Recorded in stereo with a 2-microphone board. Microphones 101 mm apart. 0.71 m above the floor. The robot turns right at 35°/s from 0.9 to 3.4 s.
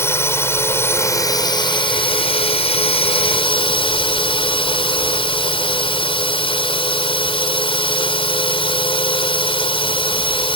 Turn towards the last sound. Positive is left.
turn(degrees=115)